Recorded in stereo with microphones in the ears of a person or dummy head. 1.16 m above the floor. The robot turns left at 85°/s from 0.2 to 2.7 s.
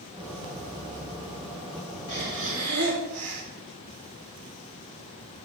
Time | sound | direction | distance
2.1 | breathing | 40° right | 2.5 m